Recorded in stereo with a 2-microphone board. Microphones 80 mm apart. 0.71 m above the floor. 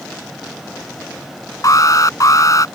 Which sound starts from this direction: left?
An alarm, at 1.6 s.